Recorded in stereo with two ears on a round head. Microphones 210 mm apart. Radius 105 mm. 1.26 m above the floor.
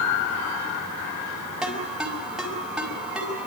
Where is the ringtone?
5° right (ahead or behind), 5 m.